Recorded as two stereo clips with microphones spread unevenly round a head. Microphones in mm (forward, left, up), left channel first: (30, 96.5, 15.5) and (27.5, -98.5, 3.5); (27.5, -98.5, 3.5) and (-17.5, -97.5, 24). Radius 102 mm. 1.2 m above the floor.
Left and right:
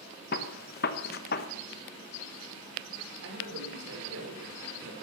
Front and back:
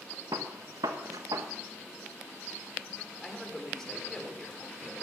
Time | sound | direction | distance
0.3 | a gunshot | 135° left | 1.1 m
3.2 | a man speaking | 80° right | 4.5 m